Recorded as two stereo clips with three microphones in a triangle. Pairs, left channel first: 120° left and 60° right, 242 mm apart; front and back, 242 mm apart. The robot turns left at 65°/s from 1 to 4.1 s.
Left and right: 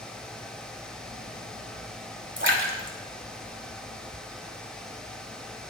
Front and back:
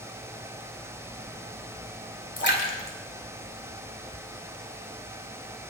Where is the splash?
30° right, 2.5 m; by 4.1 s 140° right, 2.5 m.